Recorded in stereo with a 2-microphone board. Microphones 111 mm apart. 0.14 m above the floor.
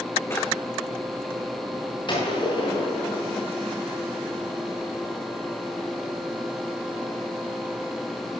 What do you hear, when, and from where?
0.3 s a drawer: 25° left (ahead or behind), 2.5 m
2.1 s a gunshot: 45° left (ahead or behind), 9 m